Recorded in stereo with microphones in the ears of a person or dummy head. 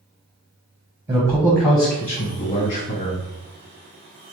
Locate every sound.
1.1 s a man speaking: 10° right (ahead or behind), 0.6 m; by 3.2 s 40° left (ahead or behind), 1.5 m